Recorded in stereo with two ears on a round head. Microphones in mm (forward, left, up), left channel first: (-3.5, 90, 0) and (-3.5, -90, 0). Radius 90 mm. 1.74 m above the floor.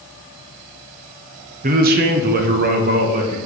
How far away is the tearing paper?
I don't hear tearing paper.